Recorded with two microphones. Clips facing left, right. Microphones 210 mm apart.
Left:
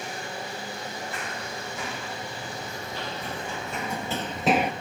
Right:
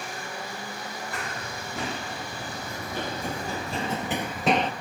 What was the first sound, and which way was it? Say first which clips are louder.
Running footsteps: even; 70° right (ahead or behind).